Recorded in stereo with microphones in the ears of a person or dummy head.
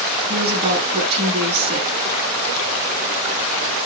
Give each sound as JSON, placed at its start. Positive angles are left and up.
{"t": 0.3, "sound": "a woman speaking", "side_deg": -30, "distance_m": 8.5}